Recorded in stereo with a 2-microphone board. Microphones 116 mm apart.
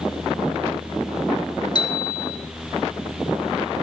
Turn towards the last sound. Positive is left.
turn(degrees=40)  # may be behind; listen again after turning